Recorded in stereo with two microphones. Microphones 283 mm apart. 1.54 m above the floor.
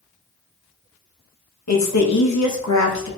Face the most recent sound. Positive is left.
turn(degrees=75)  # may be behind; listen again after turning